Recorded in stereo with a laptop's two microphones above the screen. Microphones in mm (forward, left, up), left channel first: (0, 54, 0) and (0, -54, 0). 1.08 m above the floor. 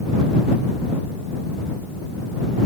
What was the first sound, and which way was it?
Only background noise.